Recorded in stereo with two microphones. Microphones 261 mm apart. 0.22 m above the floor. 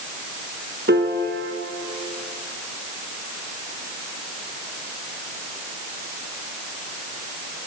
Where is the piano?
45° right (ahead or behind), 1.9 m.